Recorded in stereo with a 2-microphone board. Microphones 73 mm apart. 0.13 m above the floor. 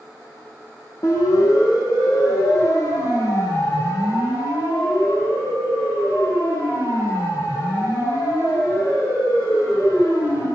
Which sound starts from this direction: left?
A siren, at 1.0 s.